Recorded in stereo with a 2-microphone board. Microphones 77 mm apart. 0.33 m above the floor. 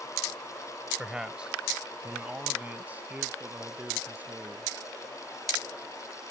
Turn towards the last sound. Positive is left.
turn(degrees=-25)  # may be behind; listen again after turning